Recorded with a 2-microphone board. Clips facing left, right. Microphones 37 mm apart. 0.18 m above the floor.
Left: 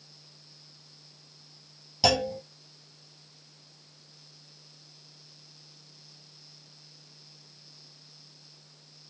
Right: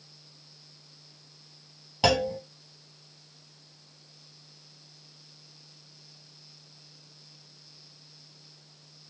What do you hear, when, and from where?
2.0 s a clunk: 30° right (ahead or behind), 1.0 m